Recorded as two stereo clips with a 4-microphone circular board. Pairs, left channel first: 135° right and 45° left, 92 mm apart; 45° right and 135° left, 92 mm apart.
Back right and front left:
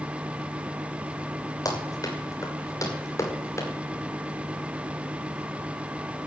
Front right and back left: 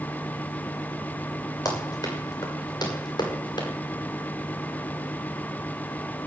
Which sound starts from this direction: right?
Running footsteps, at 1.6 s.